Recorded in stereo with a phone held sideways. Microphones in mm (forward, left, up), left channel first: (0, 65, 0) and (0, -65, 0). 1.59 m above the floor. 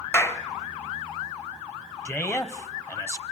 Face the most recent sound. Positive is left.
turn(degrees=20)  # may be behind; listen again after turning